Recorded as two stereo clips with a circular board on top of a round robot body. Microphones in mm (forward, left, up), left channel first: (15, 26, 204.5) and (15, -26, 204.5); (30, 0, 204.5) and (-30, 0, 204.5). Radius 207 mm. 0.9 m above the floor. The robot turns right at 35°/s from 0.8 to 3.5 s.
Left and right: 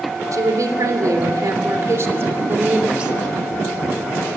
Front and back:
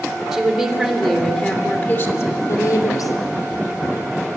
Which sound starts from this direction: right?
A woman speaking, at 0.3 s.